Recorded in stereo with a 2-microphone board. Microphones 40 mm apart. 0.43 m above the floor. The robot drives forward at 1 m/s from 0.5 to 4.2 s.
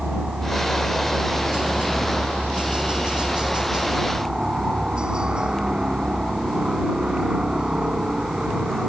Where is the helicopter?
25° right (ahead or behind); by 8.9 s 20° right (ahead or behind).